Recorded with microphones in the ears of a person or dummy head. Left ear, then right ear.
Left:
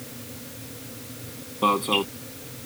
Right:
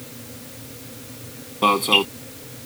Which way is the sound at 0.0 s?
5° left (ahead or behind).